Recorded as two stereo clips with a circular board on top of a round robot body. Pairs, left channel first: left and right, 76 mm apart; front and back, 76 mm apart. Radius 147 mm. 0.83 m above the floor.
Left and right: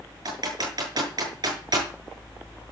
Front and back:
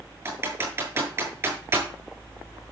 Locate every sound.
0.2 s typing on a keyboard: 125° right, 8.5 m